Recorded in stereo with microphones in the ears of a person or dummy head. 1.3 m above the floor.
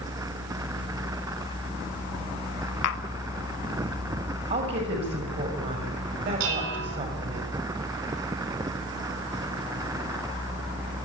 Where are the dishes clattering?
80° right, 8 m.